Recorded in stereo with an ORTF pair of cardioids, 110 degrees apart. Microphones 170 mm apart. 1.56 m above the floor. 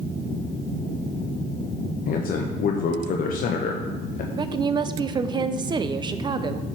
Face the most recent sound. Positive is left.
turn(degrees=-25)